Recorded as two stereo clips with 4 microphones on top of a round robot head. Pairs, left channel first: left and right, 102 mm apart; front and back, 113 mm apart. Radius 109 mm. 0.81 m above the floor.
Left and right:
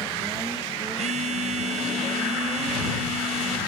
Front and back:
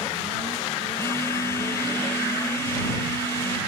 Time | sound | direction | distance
1.0 | a phone buzzing | 75° right | ?